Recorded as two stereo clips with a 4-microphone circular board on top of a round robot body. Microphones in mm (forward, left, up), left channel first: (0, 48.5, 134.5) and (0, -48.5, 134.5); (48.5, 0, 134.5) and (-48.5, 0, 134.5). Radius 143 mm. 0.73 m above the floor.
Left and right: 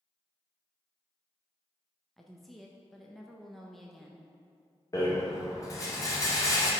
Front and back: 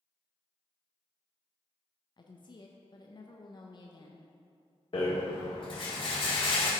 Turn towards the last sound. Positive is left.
turn(degrees=35)